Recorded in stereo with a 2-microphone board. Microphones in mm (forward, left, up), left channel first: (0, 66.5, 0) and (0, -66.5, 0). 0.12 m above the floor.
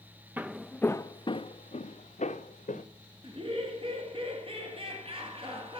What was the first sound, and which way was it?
Footsteps, 10° right (ahead or behind).